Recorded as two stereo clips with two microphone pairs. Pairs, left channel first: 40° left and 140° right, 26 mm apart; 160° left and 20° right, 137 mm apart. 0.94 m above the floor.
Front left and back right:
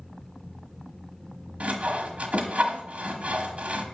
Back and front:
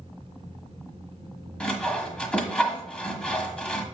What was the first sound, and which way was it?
Sawing, 120° right.